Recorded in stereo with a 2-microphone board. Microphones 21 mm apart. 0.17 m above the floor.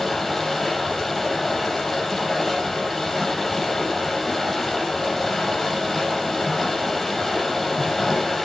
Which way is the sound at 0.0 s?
5° left (ahead or behind).